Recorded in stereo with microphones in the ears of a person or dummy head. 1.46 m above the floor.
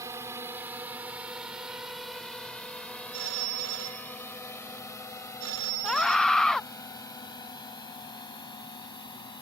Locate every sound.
0.0 s a drone: 25° right (ahead or behind); by 9.4 s 15° left (ahead or behind)
3.1 s a phone ringing: 65° right (ahead or behind)
5.8 s a scream: 5° right (ahead or behind)